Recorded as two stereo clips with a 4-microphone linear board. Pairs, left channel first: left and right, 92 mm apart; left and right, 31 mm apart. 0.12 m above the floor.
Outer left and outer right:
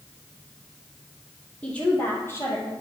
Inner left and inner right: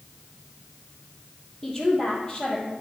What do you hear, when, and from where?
1.6 s a woman speaking: 10° left (ahead or behind), 3 m; by 2.7 s 30° left (ahead or behind), 3 m